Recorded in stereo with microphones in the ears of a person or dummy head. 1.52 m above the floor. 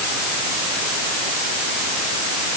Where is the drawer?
No drawer in this recording.